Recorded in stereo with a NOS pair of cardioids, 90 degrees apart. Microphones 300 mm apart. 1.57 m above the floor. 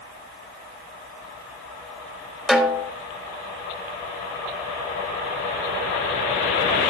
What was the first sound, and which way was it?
A snare drum, straight ahead.